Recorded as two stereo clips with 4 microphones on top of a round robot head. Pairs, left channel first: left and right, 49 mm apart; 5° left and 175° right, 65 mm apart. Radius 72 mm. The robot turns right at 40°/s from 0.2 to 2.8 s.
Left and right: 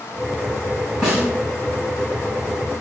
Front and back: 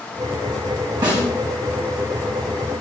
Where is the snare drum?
170° right, 1.5 m; by 1.2 s 165° right, 1.5 m.